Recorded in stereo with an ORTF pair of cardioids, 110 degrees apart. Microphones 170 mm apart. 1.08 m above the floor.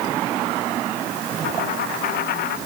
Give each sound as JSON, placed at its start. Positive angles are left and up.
{"t": 1.4, "sound": "a dropped coin", "azimuth_deg": 70}